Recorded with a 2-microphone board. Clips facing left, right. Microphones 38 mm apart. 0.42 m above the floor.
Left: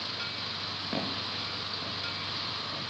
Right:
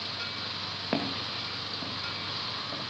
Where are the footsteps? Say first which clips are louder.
Right 3 dB; 45° right (ahead or behind), 5 m; by 2.8 s 25° right (ahead or behind), 7 m.